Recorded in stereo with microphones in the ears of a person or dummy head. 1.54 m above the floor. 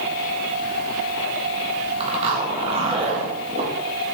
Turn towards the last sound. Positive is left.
turn(degrees=-35)  # may be behind; listen again after turning